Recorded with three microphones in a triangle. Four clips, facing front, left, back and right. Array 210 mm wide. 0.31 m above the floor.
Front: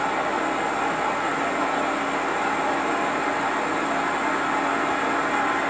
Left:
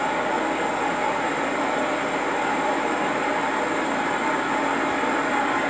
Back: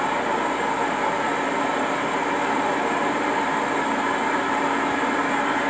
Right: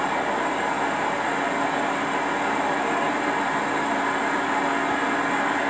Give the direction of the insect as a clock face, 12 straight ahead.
6 o'clock.